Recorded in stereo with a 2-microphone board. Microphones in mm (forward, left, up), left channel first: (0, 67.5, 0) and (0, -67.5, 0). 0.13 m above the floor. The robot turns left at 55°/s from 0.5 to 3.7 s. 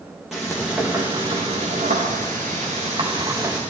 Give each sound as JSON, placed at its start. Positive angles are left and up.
{"t": 0.3, "sound": "frying", "azimuth_deg": -5, "distance_m": 4.0}